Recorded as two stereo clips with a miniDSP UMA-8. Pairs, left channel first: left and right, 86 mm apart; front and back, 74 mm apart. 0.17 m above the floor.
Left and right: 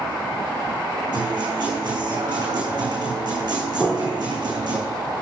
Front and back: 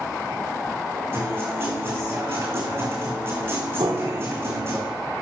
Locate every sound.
1.1 s a guitar: 120° right, 4 m
3.8 s a piano: 170° left, 2 m